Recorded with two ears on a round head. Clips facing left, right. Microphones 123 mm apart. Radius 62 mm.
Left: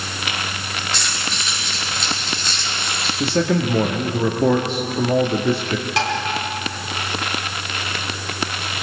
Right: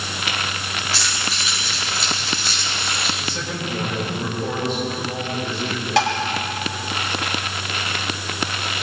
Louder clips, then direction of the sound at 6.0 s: Right 5 dB; 65° right (ahead or behind).